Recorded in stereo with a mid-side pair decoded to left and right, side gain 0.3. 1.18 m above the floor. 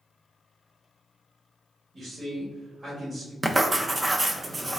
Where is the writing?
30° right, 0.5 m.